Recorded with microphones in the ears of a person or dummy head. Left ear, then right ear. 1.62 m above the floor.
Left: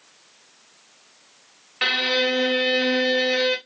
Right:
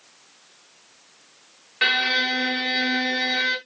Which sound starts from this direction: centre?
A violin, at 1.8 s.